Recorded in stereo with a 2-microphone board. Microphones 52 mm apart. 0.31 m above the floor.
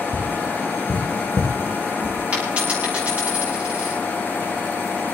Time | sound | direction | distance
0.1 | tapping | 50° right (ahead or behind) | 4 m
2.3 | a dropped coin | 30° right (ahead or behind) | 8.5 m